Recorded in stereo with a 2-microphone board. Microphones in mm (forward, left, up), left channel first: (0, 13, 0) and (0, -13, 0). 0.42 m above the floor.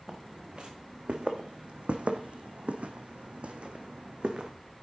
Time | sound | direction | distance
0.1 | footsteps | 35° right (ahead or behind) | 1.9 m